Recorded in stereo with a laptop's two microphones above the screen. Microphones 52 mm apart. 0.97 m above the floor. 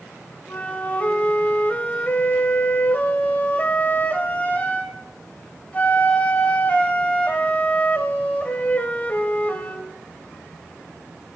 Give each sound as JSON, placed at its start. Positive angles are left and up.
{"t": 0.5, "sound": "a flute", "side_deg": 30, "distance_m": 1.3}